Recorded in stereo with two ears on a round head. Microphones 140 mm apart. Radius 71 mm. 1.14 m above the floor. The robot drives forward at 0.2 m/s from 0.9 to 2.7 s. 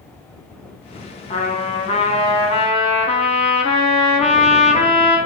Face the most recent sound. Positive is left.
turn(degrees=40)  # may be behind; listen again after turning